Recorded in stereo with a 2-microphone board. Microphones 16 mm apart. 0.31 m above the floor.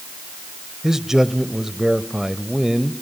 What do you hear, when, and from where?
0.8 s a man speaking: 30° right (ahead or behind), 1.1 m